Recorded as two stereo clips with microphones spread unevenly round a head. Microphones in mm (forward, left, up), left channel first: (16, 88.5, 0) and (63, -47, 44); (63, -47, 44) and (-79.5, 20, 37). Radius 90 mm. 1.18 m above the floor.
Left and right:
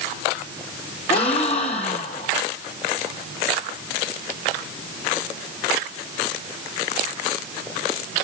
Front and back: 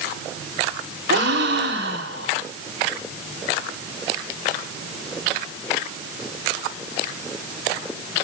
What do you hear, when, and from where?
1.1 s a gasp: 170° left, 1.7 m